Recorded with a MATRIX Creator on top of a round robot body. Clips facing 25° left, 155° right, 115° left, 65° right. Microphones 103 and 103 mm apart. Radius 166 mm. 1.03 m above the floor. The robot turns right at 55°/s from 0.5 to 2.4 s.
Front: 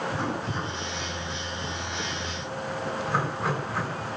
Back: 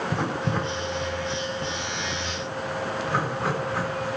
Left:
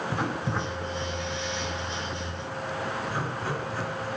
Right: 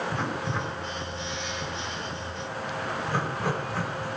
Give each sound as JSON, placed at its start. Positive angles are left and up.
{"t": 0.1, "sound": "writing", "azimuth_deg": -170, "distance_m": 5.0}